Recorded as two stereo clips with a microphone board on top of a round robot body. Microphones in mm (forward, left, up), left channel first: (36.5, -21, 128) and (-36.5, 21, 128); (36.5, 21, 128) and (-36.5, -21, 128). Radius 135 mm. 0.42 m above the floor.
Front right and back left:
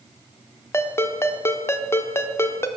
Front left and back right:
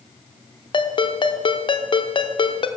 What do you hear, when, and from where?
0.7 s a ringtone: 30° left, 0.9 m